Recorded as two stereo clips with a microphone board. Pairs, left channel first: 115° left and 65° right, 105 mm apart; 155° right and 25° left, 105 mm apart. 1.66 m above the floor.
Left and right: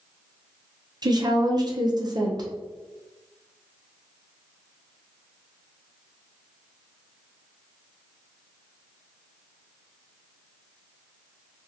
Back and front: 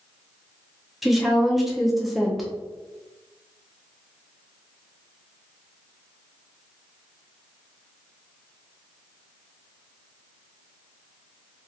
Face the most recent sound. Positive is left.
turn(degrees=-70)